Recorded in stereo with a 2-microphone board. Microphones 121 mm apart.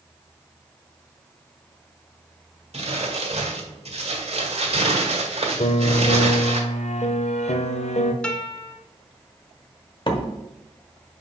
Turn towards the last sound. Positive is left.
turn(degrees=40)  # may be behind; listen again after turning